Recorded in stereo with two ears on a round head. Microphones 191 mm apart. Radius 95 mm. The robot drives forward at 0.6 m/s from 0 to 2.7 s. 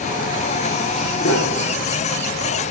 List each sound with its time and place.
1.2 s a piano: 65° left (ahead or behind), 1.7 m; by 2.0 s 60° left (ahead or behind), 1.7 m